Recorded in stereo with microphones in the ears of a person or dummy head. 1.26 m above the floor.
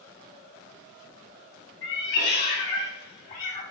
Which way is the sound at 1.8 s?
70° left (ahead or behind).